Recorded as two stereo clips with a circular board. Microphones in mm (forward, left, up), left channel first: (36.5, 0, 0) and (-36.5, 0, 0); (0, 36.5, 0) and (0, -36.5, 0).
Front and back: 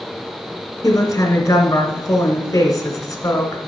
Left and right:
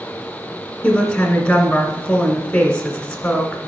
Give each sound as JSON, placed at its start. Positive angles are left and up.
{"t": 0.8, "sound": "a woman speaking", "azimuth_deg": 20, "distance_m": 2.0}